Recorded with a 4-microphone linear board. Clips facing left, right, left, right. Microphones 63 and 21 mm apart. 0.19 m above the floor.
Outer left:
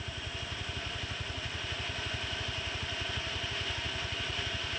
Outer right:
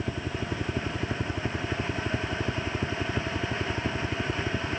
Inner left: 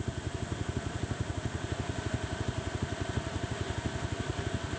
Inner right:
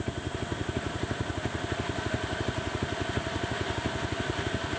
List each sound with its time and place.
0.0 s a helicopter: 70° right (ahead or behind)